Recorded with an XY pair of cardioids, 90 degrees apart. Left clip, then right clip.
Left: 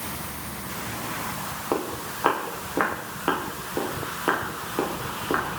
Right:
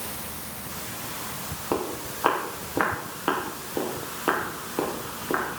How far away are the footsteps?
About 5.5 m.